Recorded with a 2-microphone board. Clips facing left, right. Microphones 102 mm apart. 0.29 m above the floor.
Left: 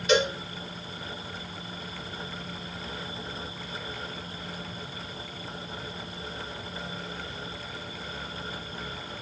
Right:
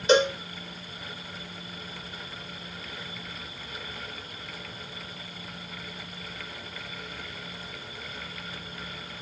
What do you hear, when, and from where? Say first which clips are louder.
0.1 s a cowbell: right 3 dB; 30° right (ahead or behind), 3 m